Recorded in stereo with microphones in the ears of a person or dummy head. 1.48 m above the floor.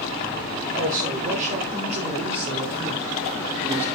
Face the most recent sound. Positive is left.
turn(degrees=-10)  # may be behind; listen again after turning